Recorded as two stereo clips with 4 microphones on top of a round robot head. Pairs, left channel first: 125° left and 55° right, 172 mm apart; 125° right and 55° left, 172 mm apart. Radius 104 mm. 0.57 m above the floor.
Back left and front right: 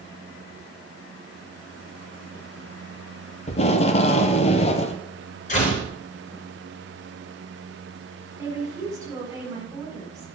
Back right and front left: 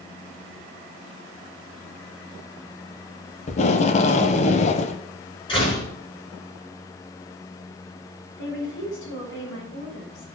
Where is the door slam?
170° left, 7 m.